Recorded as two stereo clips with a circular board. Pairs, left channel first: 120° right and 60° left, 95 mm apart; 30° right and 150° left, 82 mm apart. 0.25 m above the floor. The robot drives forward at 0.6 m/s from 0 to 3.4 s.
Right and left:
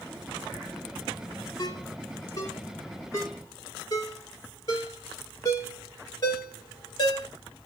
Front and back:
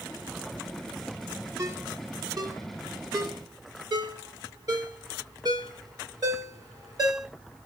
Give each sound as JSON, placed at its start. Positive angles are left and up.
{"t": 1.6, "sound": "a ringtone", "azimuth_deg": -165, "distance_m": 1.3}